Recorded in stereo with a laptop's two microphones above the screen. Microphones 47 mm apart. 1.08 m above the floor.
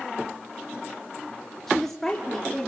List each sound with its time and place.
1.7 s a woman speaking: 10° left (ahead or behind), 3 m; by 2.7 s 15° left (ahead or behind), 3.5 m